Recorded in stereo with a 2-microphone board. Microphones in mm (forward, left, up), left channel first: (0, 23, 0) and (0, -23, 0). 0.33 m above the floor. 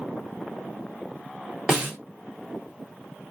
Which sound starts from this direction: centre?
A snare drum, at 1.7 s.